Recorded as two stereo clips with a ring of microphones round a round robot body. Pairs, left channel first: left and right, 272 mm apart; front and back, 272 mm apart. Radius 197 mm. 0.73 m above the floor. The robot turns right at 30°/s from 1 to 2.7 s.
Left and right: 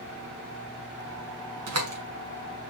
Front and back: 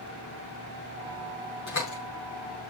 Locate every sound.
1.7 s a door slam: 65° right, 5.5 m; by 2.0 s 55° right, 5.5 m